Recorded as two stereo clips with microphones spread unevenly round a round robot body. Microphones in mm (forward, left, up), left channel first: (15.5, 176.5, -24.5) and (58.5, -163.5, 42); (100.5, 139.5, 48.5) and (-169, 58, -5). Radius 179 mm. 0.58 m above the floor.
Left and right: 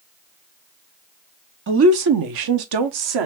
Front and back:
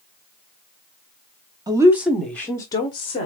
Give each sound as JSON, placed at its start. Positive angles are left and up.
{"t": 1.7, "sound": "a woman speaking", "azimuth_deg": -135, "distance_m": 0.6}